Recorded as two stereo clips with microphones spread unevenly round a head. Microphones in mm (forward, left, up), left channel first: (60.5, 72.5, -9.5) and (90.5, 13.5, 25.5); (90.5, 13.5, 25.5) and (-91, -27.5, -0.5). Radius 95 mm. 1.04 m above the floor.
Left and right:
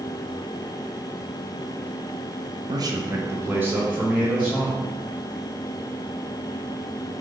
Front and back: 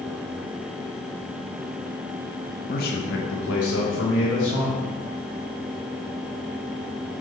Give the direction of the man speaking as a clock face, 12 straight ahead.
1 o'clock.